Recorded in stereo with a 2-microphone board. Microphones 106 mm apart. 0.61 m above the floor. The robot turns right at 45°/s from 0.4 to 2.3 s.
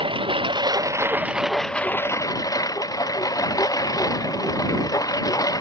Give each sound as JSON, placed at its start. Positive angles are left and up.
{"t": 0.0, "sound": "a lawn mower", "azimuth_deg": -50}